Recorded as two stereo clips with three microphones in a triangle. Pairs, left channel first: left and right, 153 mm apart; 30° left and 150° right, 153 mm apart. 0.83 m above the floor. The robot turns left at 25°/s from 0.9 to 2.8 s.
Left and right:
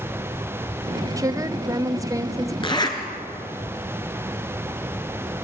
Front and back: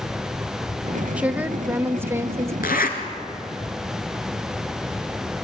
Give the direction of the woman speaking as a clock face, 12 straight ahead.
3 o'clock.